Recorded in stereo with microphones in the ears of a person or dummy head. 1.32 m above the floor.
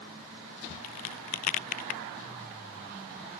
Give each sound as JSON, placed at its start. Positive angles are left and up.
{"t": 0.8, "sound": "a crack", "side_deg": 40}